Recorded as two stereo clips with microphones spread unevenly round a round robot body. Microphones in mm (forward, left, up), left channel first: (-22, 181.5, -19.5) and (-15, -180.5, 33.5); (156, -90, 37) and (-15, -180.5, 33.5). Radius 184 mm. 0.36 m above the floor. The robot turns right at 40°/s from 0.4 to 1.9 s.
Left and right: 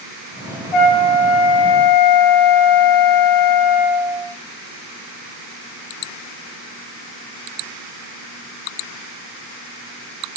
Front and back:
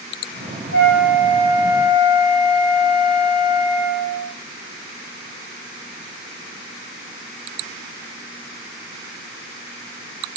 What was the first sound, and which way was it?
A flute, 85° left.